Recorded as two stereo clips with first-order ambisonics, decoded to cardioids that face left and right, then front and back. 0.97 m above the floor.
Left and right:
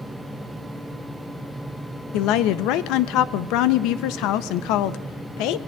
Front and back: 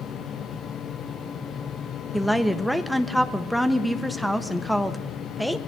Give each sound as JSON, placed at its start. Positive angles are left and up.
{"t": 2.1, "sound": "a woman speaking", "azimuth_deg": 90, "distance_m": 0.7}